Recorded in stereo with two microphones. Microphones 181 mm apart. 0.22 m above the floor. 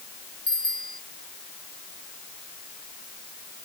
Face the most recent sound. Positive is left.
turn(degrees=55)  # may be behind; listen again after turning